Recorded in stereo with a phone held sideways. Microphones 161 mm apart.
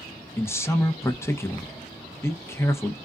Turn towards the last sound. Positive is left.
turn(degrees=15)  # may be behind; listen again after turning